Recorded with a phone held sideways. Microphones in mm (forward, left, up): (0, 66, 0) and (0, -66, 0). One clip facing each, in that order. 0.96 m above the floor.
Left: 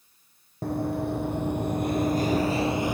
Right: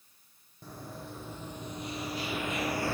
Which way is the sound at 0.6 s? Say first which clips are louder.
Left 17 dB; 65° left (ahead or behind).